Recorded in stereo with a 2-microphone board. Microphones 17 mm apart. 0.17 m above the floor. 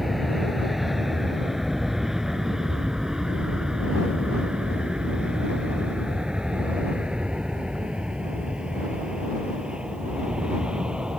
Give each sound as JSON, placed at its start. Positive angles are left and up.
{"t": 0.0, "sound": "an aircraft", "side_deg": -10}